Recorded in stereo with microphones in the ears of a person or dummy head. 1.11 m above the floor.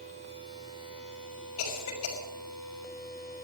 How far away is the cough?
About 6 m.